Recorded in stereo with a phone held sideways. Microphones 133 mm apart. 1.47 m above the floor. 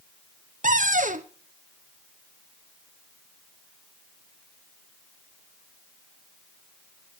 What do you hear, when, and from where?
0.6 s a cupboard door: 75° right (ahead or behind), 0.9 m